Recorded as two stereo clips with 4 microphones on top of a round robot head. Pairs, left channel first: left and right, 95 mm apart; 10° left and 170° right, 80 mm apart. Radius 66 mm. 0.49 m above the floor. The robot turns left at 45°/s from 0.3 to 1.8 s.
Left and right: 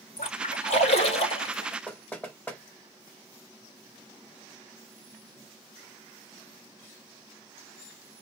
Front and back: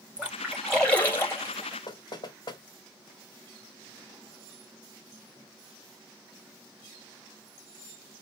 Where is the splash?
115° left, 4 m; by 1.8 s 50° left, 4 m.